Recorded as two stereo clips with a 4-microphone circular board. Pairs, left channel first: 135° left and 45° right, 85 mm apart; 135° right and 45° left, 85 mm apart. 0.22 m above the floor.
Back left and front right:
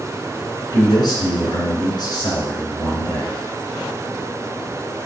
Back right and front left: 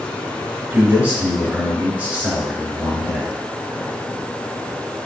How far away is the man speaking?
About 3 m.